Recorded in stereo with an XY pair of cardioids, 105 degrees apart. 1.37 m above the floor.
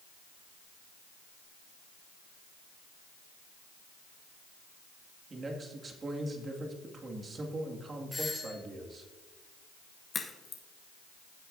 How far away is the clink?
I don't hear a clink.